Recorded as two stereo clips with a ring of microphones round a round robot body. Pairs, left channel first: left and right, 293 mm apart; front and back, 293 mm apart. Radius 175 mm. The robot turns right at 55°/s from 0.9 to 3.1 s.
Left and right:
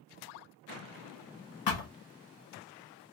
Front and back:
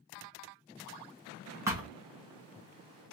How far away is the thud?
About 1.2 m.